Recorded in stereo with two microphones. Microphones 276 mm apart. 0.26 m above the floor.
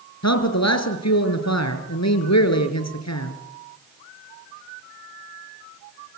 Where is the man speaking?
70° left (ahead or behind), 3.5 m.